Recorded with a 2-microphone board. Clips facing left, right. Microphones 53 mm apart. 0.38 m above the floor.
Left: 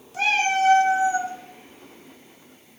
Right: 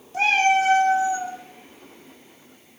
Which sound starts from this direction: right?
A cat meowing, at 0.1 s.